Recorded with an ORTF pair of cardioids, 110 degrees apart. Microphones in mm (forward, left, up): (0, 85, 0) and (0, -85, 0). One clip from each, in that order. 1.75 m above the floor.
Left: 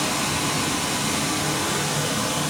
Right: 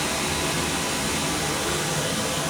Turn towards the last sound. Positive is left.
turn(degrees=5)